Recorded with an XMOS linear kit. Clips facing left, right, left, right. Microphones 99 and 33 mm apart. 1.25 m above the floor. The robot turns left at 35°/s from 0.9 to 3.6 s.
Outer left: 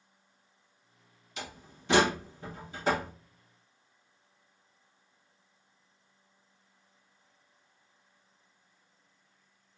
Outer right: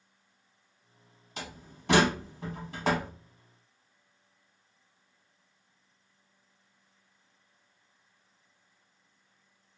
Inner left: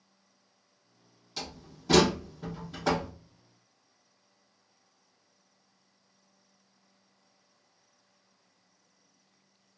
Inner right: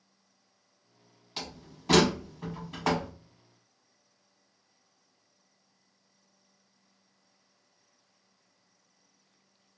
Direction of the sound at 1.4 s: 40° right (ahead or behind).